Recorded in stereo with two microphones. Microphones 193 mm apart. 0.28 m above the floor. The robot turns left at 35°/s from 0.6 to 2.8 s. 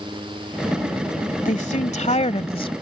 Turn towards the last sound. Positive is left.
turn(degrees=45)